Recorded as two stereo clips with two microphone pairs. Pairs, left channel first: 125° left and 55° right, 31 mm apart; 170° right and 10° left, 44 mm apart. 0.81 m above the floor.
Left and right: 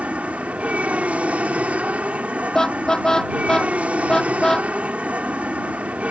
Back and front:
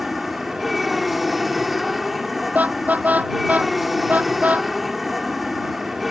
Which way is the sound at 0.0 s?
75° right.